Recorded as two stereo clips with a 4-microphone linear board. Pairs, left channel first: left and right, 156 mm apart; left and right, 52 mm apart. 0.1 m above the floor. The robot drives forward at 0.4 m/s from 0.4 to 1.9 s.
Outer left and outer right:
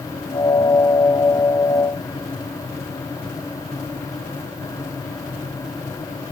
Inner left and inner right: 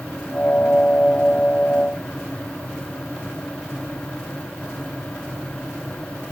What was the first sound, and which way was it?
Only background noise.